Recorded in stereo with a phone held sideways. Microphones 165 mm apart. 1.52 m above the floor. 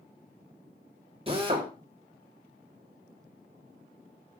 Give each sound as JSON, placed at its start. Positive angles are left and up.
{"t": 1.3, "sound": "a drill", "side_deg": -35, "distance_m": 3.0}